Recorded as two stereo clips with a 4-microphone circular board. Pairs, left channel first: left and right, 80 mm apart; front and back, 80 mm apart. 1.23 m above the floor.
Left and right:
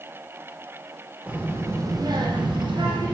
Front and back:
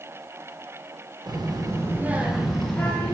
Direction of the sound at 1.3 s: 160° right.